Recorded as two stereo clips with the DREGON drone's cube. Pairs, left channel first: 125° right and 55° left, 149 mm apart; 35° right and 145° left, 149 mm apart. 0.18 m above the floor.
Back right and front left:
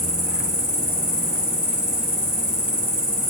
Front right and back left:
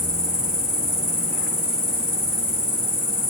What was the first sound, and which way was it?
An insect, 85° left.